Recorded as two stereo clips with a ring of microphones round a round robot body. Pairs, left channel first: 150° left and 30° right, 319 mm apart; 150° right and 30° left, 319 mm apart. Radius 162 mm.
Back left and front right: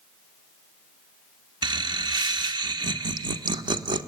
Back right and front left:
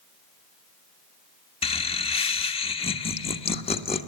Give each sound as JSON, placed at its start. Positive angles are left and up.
{"t": 1.6, "sound": "laughter", "azimuth_deg": -95, "distance_m": 1.2}